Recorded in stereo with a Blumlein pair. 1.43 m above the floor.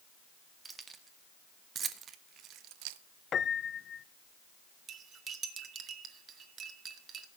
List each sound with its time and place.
0.7 s keys jangling: 15° right, 2 m; by 3.0 s 50° right, 0.8 m
3.3 s a piano: 25° left, 0.6 m
4.9 s cutlery clinking: 25° right, 2.0 m